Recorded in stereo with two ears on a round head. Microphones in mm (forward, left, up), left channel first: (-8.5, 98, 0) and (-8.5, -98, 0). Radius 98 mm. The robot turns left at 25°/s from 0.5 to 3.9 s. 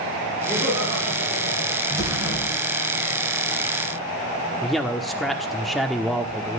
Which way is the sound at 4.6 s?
Centre (ahead or behind).